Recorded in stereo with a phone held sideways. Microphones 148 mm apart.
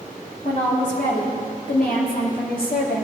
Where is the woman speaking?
55° left (ahead or behind), 2.5 m; by 3.0 s 80° left, 1.9 m.